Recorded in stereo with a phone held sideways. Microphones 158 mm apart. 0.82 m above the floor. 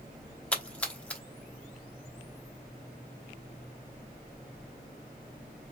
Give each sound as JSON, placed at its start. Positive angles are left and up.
{"t": 0.5, "sound": "a splash", "side_deg": 10, "distance_m": 1.0}